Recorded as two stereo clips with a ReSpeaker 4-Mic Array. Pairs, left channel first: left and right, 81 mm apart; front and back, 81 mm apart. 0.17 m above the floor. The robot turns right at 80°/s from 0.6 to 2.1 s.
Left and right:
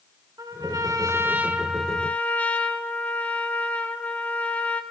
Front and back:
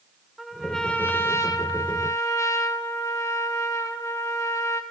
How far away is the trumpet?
About 1.7 m.